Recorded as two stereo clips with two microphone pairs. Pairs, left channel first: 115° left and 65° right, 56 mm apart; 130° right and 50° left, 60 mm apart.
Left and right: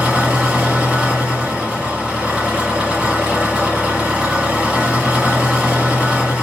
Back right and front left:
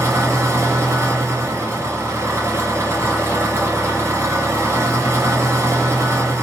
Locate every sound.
0.0 s an engine running: 10° left, 4 m